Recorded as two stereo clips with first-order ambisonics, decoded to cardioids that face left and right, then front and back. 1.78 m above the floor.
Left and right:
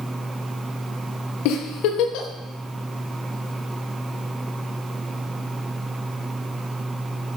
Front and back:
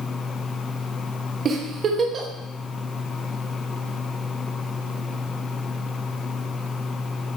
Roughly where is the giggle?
Behind left.